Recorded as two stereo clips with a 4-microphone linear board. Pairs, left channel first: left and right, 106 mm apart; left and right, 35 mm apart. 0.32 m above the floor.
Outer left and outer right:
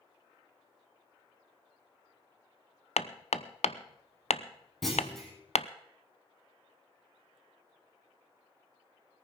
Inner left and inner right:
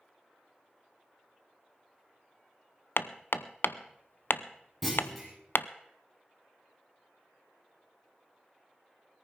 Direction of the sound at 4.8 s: Centre (ahead or behind).